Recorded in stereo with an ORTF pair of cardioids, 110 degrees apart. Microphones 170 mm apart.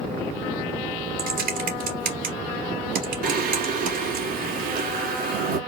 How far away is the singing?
About 2 m.